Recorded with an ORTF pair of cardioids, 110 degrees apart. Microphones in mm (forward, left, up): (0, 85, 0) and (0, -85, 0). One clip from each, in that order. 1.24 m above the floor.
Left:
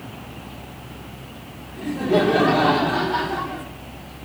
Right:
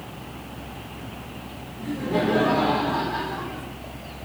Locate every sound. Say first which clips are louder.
1.8 s laughter: left 6 dB; 65° left, 1.9 m; by 3.6 s 30° left, 0.8 m